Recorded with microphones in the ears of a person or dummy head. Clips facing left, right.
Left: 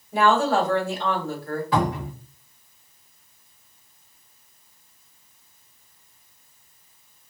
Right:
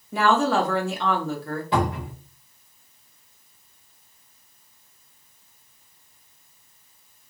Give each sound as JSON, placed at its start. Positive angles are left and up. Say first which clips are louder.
{"t": 0.1, "sound": "a woman speaking", "louder": "left 1 dB", "side_deg": -60, "distance_m": 0.9}
{"t": 1.7, "sound": "a cupboard door", "louder": "even", "side_deg": -25, "distance_m": 1.5}